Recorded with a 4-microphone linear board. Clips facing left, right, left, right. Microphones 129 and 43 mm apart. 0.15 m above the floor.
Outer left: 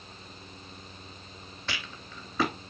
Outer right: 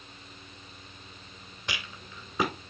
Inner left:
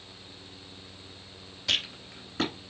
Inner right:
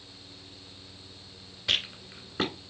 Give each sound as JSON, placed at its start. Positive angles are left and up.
{"t": 1.7, "sound": "a rattle", "side_deg": -15, "distance_m": 1.7}